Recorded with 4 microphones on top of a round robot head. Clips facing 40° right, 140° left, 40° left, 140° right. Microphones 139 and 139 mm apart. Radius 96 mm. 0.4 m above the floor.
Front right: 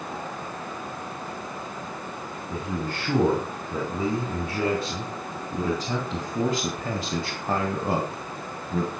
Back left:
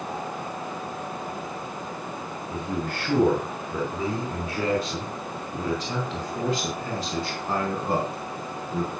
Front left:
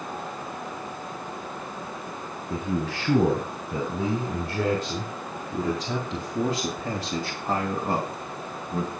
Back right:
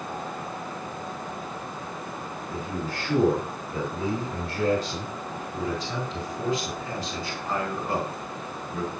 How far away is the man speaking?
About 4.5 m.